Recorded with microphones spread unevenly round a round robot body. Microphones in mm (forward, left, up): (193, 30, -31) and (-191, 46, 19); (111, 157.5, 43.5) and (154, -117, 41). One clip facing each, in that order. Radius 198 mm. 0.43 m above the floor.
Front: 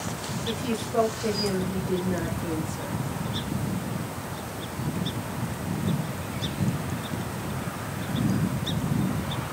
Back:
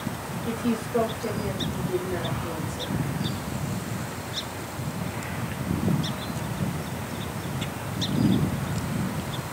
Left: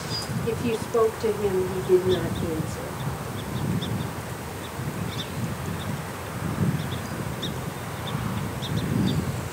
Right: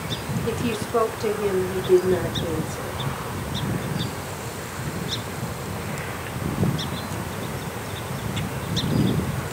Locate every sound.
0.5 s a woman speaking: 30° right, 1.2 m; by 3.0 s 40° left, 1.6 m